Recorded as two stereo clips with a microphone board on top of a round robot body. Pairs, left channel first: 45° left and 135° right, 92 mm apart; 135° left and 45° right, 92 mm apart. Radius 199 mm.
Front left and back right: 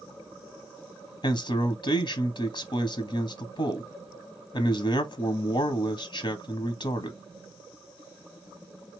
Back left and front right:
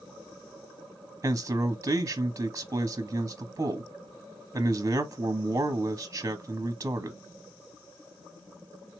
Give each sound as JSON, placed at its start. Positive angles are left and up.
{"t": 1.2, "sound": "a man speaking", "azimuth_deg": 15, "distance_m": 0.8}